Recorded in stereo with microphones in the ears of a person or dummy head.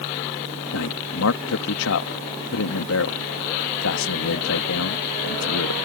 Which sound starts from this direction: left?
A man speaking, at 0.7 s.